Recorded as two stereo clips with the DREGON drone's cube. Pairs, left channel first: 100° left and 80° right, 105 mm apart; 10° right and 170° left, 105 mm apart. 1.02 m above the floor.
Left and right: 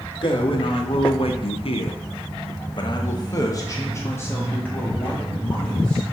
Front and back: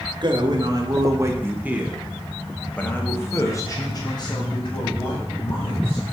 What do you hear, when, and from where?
0.2 s a man speaking: 130° left, 1.4 m; by 6.0 s 20° left, 2.5 m